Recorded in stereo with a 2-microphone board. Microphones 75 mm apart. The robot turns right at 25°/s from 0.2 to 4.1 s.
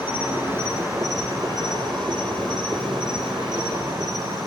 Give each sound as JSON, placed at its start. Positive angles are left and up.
{"t": 0.0, "sound": "an insect", "azimuth_deg": -160, "distance_m": 9.5}